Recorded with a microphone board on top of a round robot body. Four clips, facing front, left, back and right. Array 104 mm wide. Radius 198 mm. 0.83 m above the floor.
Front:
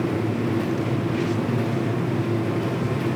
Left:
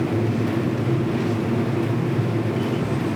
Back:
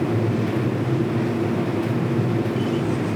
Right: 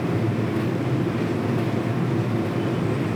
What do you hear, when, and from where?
Only background noise.